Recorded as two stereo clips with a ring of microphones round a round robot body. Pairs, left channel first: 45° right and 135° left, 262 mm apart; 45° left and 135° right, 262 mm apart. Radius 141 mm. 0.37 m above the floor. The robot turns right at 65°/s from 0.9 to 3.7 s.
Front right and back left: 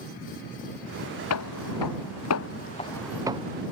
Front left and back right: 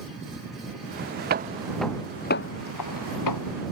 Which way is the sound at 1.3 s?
80° right.